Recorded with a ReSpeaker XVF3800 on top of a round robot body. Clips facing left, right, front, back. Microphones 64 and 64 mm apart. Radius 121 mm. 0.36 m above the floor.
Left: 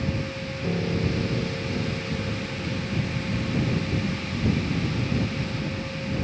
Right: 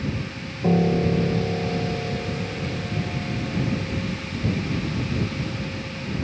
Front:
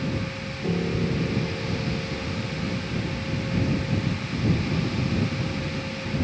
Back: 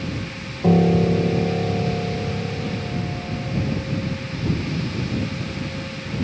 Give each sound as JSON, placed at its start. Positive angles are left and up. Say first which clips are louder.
{"t": 0.6, "sound": "a piano", "louder": "right 7 dB, back 10 dB", "azimuth_deg": -140}